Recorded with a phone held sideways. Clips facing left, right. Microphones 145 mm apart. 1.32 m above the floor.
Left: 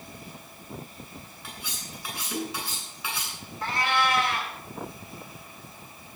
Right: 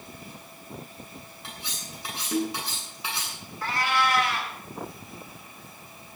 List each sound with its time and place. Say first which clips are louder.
1.4 s cutlery clinking: even; 20° right (ahead or behind), 9 m
3.6 s a cat meowing: even; 25° left (ahead or behind), 4.5 m